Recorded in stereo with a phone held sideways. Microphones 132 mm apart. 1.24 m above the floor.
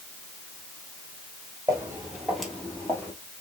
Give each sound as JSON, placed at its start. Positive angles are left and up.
{"t": 1.7, "sound": "footsteps", "side_deg": -20, "distance_m": 1.7}